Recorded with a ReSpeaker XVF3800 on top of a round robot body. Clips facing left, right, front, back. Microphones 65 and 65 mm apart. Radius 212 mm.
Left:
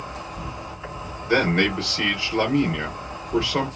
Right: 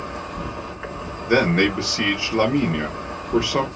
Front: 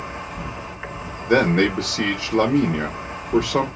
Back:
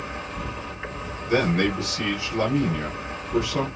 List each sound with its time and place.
0.0 s an insect: 80° right, 2 m
1.3 s a man speaking: 15° right, 1.3 m